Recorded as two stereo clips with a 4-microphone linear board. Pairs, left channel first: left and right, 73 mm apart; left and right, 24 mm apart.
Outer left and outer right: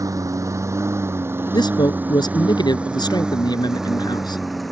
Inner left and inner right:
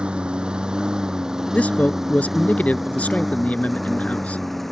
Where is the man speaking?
80° left.